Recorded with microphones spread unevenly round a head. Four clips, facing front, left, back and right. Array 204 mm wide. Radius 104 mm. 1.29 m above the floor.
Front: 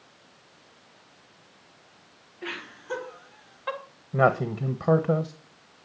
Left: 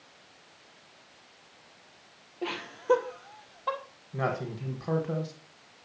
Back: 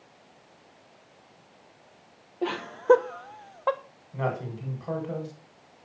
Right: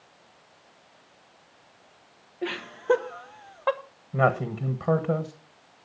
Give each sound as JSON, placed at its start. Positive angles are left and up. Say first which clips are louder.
{"t": 2.4, "sound": "laughter", "louder": "right 3 dB, back 14 dB", "azimuth_deg": 175, "distance_m": 1.2}
{"t": 4.1, "sound": "a man speaking", "louder": "right 8 dB, front 9 dB", "azimuth_deg": -25, "distance_m": 1.3}